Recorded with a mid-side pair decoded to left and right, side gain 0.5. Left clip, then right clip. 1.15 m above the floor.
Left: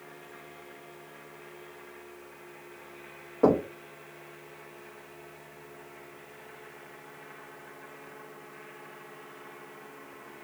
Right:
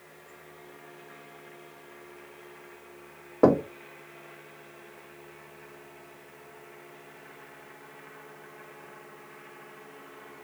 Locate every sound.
3.4 s knocking: 50° right, 0.6 m